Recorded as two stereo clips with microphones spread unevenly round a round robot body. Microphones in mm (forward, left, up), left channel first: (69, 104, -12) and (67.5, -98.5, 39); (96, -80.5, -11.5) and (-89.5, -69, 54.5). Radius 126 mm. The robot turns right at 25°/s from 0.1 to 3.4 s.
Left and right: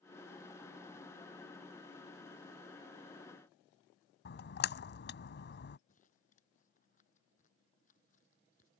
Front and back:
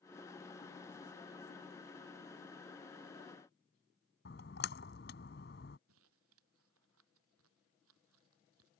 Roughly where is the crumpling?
Behind left.